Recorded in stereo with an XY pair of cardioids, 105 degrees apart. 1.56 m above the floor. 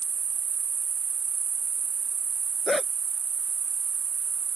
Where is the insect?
40° right.